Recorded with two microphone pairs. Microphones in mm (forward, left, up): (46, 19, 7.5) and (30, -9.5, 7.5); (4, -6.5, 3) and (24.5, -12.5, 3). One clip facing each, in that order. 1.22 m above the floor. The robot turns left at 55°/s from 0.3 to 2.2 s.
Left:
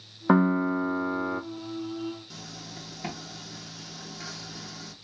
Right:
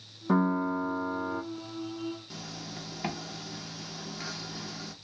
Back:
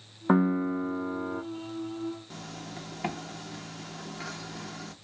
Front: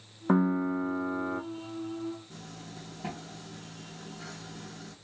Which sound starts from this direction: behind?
A zipper, at 2.3 s.